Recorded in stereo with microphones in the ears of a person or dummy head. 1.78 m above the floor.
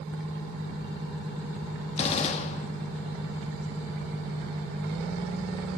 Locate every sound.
2.0 s a gunshot: 35° left (ahead or behind), 2.5 m